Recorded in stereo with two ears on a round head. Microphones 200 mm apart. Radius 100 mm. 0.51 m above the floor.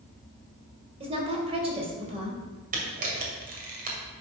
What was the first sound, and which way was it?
A woman speaking, 25° right (ahead or behind).